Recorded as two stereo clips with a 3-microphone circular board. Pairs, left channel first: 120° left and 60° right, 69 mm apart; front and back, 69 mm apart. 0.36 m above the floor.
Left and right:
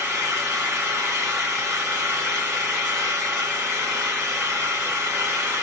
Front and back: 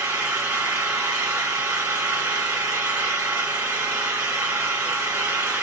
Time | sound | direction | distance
0.0 | an engine running | 115° right | 1.6 m